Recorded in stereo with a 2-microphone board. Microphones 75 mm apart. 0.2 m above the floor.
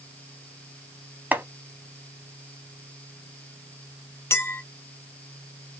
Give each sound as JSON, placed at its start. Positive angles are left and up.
{"t": 1.3, "sound": "chopping", "side_deg": -25, "distance_m": 0.5}
{"t": 4.3, "sound": "a clink", "side_deg": 35, "distance_m": 0.7}